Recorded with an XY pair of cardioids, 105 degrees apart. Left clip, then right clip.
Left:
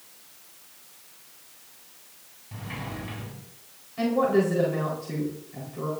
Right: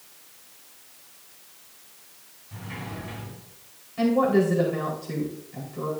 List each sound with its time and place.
2.5 s a sliding door: 30° left, 4.5 m
4.0 s a woman speaking: 5° right, 4 m